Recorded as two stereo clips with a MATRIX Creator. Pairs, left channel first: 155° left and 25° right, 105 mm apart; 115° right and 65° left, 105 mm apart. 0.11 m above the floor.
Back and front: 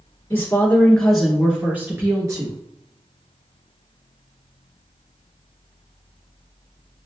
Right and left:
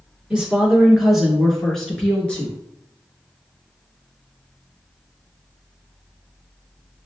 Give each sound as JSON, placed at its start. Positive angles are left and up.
{"t": 0.3, "sound": "a woman speaking", "azimuth_deg": 135, "distance_m": 1.2}